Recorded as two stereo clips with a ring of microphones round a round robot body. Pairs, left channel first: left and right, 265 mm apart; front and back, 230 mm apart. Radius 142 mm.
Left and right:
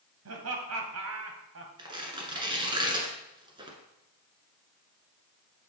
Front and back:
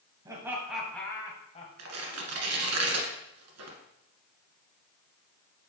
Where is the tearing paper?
165° right, 1.6 m.